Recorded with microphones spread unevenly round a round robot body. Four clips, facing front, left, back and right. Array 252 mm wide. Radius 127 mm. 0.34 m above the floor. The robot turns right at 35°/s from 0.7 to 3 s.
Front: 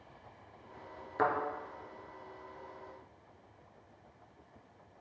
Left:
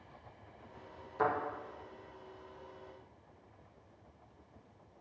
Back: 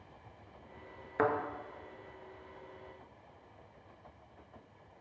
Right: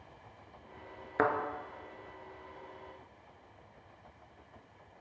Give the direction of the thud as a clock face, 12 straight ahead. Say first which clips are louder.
Right 3 dB, even; 3 o'clock.